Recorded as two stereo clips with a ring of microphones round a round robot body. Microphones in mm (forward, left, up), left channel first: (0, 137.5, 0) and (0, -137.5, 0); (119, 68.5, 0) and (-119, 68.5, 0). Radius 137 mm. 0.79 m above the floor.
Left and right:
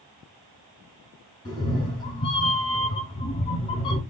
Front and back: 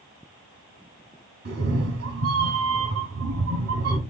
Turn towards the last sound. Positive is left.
turn(degrees=165)